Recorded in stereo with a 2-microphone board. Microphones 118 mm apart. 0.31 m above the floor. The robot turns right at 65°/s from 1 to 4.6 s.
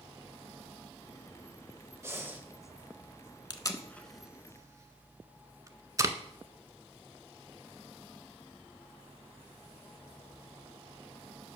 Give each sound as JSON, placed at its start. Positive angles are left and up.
{"t": 2.0, "sound": "breathing", "side_deg": -25, "distance_m": 0.7}
{"t": 3.5, "sound": "tape being pulled", "side_deg": 40, "distance_m": 0.5}